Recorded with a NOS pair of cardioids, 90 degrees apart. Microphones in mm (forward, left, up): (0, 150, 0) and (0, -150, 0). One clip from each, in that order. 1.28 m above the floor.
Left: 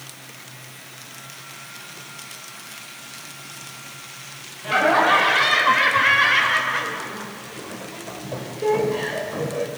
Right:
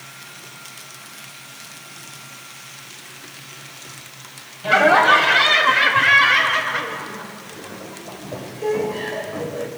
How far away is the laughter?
About 5 m.